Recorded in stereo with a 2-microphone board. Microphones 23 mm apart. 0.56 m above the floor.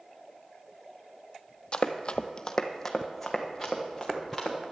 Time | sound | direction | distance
1.7 | running footsteps | 45° left (ahead or behind) | 0.8 m